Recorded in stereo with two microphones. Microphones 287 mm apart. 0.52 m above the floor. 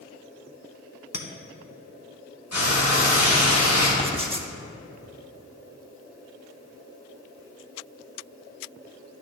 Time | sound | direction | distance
1.1 | a clink | 60° left (ahead or behind) | 0.8 m
2.5 | frying | 60° left (ahead or behind) | 2.5 m
4.0 | writing | 20° right (ahead or behind) | 0.6 m